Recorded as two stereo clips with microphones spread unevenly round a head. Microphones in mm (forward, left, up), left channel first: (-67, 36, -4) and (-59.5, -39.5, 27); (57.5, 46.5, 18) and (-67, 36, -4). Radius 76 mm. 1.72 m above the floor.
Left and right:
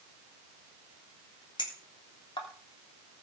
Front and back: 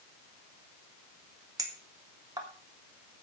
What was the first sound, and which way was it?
A clink, 120° left.